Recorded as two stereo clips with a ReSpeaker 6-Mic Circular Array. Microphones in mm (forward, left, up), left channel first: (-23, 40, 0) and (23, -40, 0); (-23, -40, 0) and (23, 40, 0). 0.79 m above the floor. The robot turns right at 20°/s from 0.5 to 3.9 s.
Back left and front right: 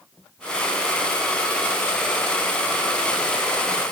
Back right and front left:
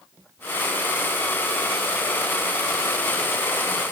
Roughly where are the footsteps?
I don't hear footsteps.